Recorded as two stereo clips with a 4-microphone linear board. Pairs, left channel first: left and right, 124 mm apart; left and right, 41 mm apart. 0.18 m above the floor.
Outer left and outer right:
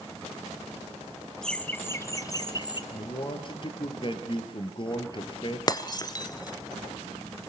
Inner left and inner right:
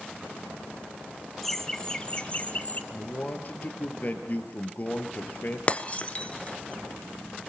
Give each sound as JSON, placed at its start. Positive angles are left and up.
{"t": 1.4, "sound": "laughter", "side_deg": 5, "distance_m": 1.2}
{"t": 2.9, "sound": "a man speaking", "side_deg": 45, "distance_m": 3.0}
{"t": 5.7, "sound": "breaking glass", "side_deg": 35, "distance_m": 1.1}